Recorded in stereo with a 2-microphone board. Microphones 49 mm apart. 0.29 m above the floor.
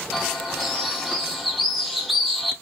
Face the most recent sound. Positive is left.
turn(degrees=0)  # may be behind; listen again after turning